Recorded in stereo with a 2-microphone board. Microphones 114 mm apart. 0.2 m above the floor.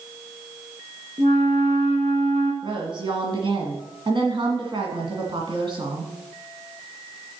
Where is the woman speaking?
45° right (ahead or behind), 1.7 m.